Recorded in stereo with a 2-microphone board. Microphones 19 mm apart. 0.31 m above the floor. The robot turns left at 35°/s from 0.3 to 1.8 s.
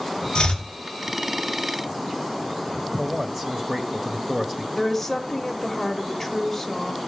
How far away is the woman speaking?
About 1.2 m.